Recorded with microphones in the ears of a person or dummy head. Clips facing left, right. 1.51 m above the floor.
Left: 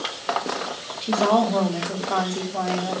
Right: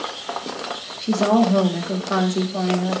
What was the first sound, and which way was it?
A woman speaking, 15° right (ahead or behind).